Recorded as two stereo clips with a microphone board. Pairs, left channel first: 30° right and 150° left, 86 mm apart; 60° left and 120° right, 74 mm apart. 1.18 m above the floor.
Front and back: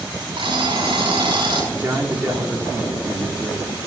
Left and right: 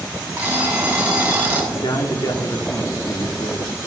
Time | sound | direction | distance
0.4 | an alarm clock | 170° left | 6 m
1.7 | a man speaking | 90° left | 3 m